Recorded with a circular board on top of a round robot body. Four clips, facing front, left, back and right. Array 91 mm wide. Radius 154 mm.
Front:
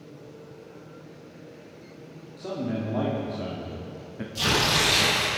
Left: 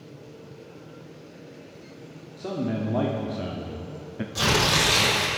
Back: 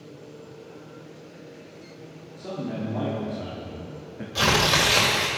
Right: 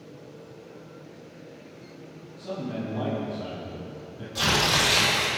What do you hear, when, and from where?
2.4 s a man speaking: 75° left, 2 m
4.3 s tearing paper: 175° left, 2.5 m